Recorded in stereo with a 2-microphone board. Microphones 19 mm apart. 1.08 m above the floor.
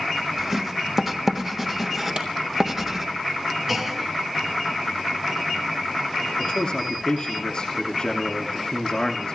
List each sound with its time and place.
0.4 s writing: 20° right (ahead or behind), 1.4 m
2.2 s a clap: 55° right (ahead or behind), 3 m
3.7 s a clunk: 15° right (ahead or behind), 1.3 m
6.4 s a man speaking: 45° left (ahead or behind), 2.5 m